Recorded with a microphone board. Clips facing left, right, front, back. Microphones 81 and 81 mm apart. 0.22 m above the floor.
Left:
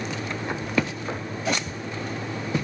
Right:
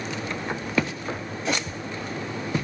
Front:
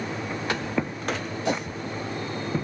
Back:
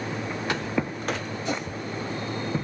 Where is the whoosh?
5° left, 4 m.